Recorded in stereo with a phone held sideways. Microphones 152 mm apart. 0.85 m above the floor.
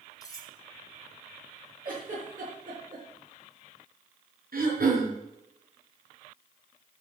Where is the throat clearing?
75° right (ahead or behind), 4.5 m.